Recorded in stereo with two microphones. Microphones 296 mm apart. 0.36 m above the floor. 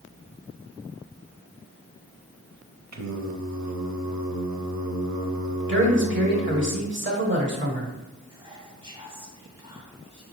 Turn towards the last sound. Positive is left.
turn(degrees=-20)  # may be behind; listen again after turning